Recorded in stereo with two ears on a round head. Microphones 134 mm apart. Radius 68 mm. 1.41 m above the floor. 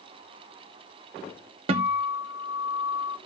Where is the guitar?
35° right (ahead or behind), 0.6 m.